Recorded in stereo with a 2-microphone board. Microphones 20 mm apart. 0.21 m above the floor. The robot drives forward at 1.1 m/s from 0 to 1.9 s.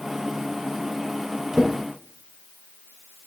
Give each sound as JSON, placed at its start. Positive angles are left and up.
{"t": 1.5, "sound": "a drawer", "side_deg": -5, "distance_m": 3.0}